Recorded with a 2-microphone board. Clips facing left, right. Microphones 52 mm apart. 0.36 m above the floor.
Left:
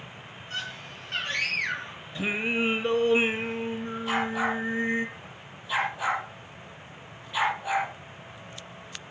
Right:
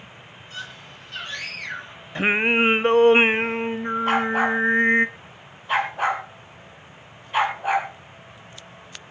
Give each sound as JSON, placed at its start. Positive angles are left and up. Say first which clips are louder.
{"t": 0.5, "sound": "a scream", "louder": "left 1 dB", "side_deg": 50, "distance_m": 9.5}
{"t": 2.1, "sound": "singing", "louder": "right 8 dB", "side_deg": -55, "distance_m": 0.7}
{"t": 4.1, "sound": "a dog barking", "louder": "right 6 dB", "side_deg": -50, "distance_m": 3.5}